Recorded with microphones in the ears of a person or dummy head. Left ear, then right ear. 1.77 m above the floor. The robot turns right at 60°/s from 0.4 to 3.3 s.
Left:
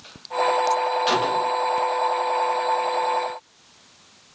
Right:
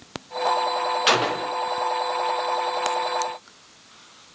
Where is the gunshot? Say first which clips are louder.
Even; 25° right (ahead or behind), 0.5 m; by 1.6 s 55° right (ahead or behind), 0.5 m.